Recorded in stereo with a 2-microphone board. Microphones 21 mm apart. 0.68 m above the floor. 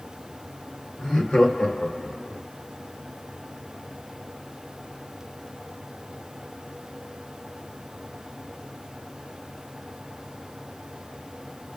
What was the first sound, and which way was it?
Laughter, 40° left (ahead or behind).